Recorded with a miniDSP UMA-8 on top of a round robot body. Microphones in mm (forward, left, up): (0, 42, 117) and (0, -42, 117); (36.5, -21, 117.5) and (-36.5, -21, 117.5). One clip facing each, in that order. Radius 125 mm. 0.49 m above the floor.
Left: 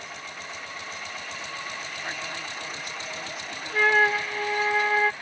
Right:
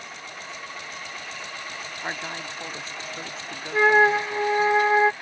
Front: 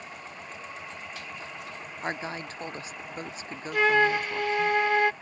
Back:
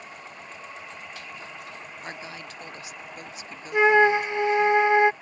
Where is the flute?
135° right.